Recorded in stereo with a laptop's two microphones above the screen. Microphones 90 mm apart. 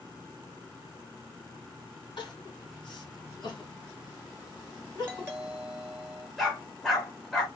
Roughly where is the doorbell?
Right.